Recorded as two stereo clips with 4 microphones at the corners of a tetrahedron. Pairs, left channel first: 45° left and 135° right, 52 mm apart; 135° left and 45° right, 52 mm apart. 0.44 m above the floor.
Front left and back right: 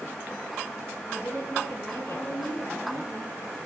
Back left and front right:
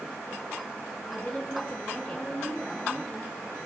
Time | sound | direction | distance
1.1 | a woman speaking | 60° left | 9.5 m